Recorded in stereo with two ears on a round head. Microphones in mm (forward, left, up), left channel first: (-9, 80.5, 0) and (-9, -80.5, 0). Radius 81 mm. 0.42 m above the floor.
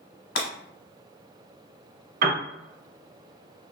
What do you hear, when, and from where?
0.3 s breaking glass: 80° left, 0.9 m
2.2 s a piano: 55° right (ahead or behind), 1.4 m